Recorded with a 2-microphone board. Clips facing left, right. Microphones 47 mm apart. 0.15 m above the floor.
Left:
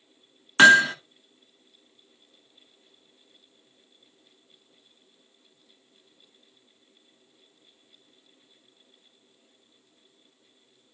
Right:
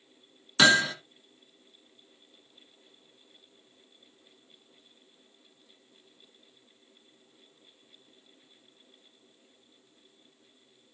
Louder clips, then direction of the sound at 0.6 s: Left 7 dB; 45° left (ahead or behind).